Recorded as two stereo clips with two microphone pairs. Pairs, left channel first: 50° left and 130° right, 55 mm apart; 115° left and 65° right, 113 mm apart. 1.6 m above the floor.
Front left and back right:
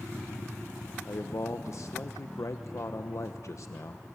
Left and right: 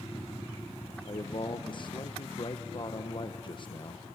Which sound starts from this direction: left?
A man speaking, at 1.1 s.